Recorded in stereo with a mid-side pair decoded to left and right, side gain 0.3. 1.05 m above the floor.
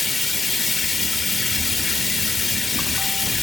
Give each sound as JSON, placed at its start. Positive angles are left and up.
{"t": 0.0, "sound": "running water", "azimuth_deg": 55, "distance_m": 0.7}